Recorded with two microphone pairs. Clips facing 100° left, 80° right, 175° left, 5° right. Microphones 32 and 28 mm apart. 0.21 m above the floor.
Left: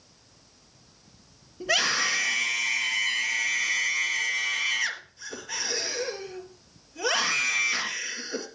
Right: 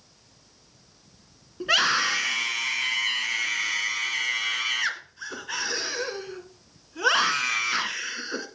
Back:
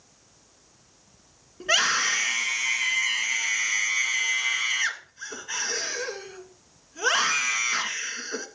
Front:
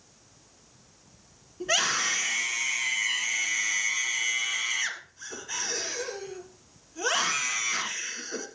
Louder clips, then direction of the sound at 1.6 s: Right 3 dB, back 4 dB; 125° right.